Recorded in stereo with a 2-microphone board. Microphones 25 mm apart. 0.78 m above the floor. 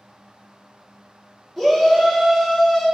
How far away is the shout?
About 1.4 m.